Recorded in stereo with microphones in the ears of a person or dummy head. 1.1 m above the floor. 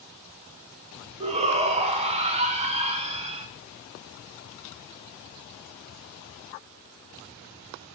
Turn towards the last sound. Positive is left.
turn(degrees=-30)  # may be behind; listen again after turning